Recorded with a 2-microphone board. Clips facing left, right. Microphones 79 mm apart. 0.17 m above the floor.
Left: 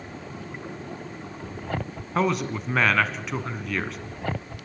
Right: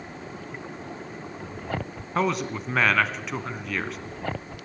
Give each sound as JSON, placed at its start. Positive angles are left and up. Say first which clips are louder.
{"t": 2.1, "sound": "a man speaking", "louder": "left 1 dB", "side_deg": 0, "distance_m": 1.4}